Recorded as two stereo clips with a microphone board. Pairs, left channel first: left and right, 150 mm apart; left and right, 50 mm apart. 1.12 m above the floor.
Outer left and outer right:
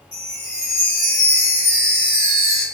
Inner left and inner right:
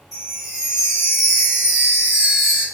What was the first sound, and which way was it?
A chime, 5° right (ahead or behind).